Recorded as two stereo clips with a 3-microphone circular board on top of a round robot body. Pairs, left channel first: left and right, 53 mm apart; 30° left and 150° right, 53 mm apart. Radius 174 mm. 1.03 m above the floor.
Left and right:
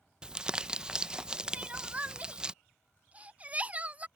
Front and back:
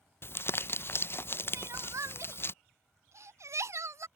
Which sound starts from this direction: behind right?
Crying, at 1.5 s.